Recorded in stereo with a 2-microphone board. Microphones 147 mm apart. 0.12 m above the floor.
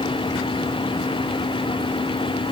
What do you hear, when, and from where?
Only background noise.